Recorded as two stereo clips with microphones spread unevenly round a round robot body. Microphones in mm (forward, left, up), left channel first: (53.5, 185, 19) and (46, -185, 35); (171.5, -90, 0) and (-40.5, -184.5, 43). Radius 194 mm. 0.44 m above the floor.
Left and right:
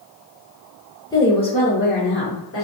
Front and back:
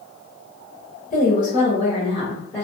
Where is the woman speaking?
15° left, 1.2 m; by 2.6 s 85° left, 1.0 m.